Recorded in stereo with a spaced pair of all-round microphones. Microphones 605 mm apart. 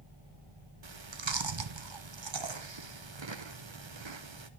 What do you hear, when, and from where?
0.8 s chewing: 45° right (ahead or behind), 0.9 m